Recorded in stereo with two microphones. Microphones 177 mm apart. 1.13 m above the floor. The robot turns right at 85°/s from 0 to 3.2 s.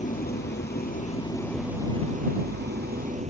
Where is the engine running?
45° left; by 3.3 s 45° right.